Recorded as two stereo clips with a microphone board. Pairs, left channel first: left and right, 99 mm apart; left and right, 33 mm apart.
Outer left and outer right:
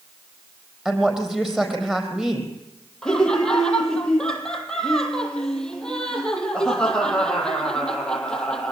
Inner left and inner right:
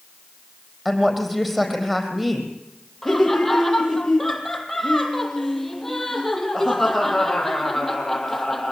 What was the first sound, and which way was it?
A woman speaking, 5° right (ahead or behind).